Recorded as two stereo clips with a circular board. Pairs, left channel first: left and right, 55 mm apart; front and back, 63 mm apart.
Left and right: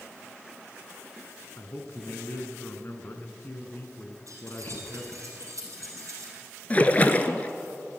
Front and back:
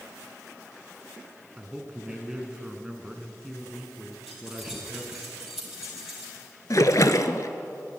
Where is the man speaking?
105° left, 1.5 m.